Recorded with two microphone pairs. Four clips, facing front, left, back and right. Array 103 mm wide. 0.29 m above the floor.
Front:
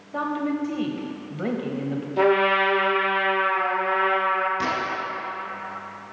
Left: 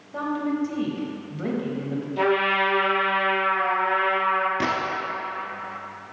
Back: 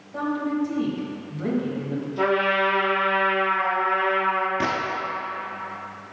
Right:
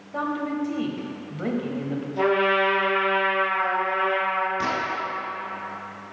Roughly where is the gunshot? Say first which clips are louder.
Left 1 dB, back 1 dB; behind left.